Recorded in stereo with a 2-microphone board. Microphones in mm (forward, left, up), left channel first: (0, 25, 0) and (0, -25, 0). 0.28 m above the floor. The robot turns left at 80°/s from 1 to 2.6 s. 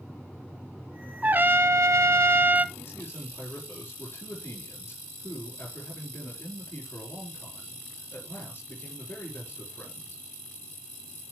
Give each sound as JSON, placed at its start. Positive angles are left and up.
{"t": 1.2, "sound": "a trumpet", "azimuth_deg": -35, "distance_m": 0.5}
{"t": 2.8, "sound": "a man speaking", "side_deg": 45, "distance_m": 6.5}